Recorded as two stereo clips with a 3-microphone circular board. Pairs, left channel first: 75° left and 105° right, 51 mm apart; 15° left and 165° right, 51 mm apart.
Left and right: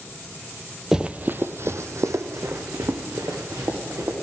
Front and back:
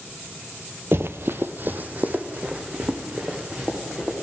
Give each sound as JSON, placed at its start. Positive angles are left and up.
{"t": 0.9, "sound": "running footsteps", "azimuth_deg": 180, "distance_m": 0.5}